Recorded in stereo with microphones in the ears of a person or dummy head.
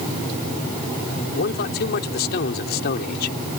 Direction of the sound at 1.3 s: 55° left (ahead or behind).